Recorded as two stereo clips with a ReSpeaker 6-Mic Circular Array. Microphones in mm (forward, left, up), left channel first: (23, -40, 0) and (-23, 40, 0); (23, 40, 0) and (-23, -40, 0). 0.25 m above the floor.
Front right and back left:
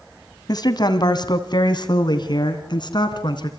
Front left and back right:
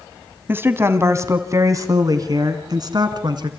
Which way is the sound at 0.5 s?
60° right.